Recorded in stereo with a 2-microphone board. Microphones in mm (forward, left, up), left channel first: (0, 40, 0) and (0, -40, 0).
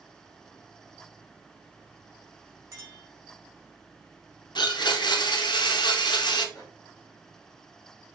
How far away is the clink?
About 1.4 m.